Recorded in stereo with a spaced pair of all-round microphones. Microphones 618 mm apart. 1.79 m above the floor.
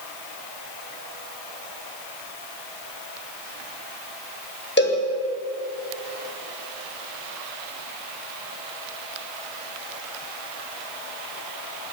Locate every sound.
4.8 s a cowbell: 15° left (ahead or behind), 7 m